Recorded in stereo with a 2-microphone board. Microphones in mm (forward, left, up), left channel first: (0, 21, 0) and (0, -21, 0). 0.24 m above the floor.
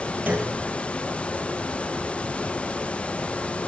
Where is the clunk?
45° right (ahead or behind), 3 m.